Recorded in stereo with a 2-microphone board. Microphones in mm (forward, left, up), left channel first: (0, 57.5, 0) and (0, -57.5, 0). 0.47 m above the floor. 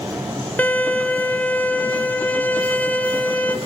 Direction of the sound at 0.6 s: 15° left (ahead or behind).